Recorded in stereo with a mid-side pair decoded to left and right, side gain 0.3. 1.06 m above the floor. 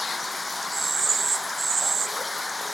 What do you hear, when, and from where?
0.0 s running water: 30° left